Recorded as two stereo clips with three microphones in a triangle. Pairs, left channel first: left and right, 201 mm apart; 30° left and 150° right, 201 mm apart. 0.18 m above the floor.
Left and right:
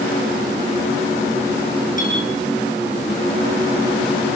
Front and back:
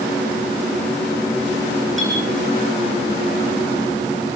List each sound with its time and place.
2.0 s a clink: 40° left, 7.5 m